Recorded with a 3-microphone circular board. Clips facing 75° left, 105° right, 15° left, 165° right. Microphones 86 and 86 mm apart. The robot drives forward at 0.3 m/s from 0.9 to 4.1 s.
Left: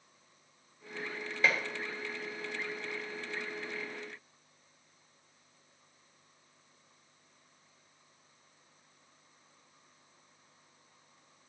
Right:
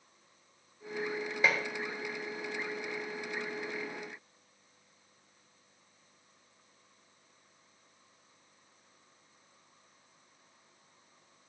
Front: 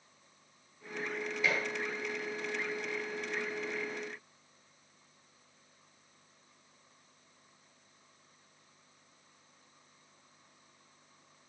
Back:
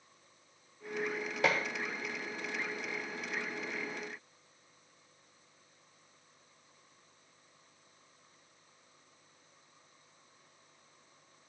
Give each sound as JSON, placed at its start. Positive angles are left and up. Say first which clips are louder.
{"t": 1.4, "sound": "dishes clattering", "louder": "even, back 3 dB", "azimuth_deg": 180, "distance_m": 1.3}